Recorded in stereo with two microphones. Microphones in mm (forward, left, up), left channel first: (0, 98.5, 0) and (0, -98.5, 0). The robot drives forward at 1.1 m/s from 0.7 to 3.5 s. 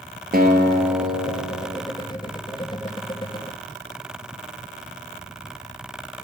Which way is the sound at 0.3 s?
50° right (ahead or behind).